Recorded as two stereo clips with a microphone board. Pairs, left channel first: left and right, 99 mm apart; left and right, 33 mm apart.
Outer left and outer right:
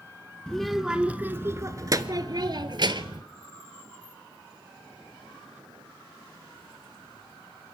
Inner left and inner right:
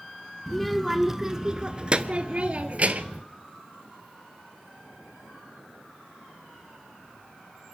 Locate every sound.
0.5 s a child speaking: 5° left (ahead or behind), 0.8 m; by 3.2 s 55° right (ahead or behind), 1.5 m